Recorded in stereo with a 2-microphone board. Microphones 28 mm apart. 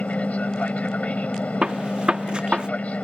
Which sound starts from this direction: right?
A gunshot, at 1.6 s.